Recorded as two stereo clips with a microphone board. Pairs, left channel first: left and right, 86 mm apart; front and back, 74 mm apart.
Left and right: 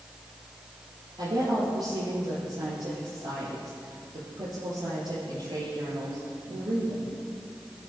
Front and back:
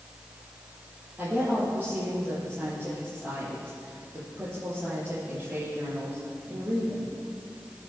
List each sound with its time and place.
1.2 s a woman speaking: 110° right, 6.5 m